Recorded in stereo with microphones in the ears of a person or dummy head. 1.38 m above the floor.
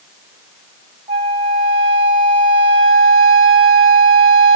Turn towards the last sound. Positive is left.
turn(degrees=-30)  # may be behind; listen again after turning